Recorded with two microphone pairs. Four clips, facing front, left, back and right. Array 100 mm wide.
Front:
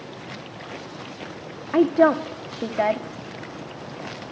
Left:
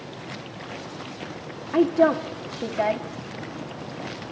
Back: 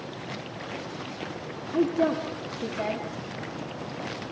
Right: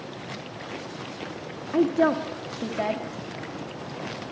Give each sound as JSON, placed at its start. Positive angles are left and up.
{"t": 1.7, "sound": "a woman speaking", "azimuth_deg": 15, "distance_m": 2.0}